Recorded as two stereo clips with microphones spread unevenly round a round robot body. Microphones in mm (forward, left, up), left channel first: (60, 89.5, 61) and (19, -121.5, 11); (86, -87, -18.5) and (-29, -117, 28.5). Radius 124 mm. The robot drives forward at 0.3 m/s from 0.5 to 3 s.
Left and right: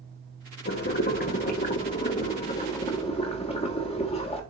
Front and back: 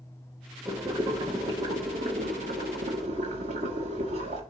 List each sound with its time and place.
0.7 s boiling: 100° left, 0.9 m; by 4.4 s 150° left, 1.2 m